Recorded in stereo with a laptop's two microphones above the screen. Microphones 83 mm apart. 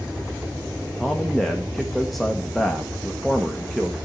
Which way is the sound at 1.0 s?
5° left (ahead or behind).